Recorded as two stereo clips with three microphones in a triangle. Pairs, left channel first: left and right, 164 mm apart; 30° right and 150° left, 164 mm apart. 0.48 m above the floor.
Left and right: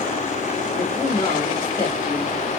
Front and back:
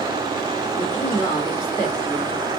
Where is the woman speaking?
35° left, 1.8 m.